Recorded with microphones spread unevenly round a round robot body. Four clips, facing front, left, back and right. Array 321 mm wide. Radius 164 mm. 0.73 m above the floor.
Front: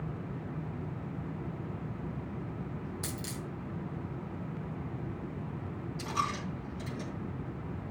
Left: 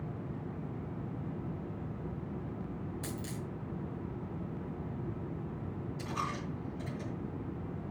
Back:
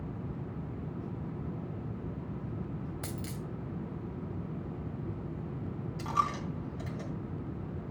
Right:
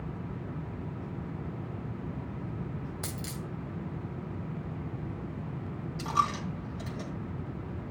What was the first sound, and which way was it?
A dropped coin, 90° right.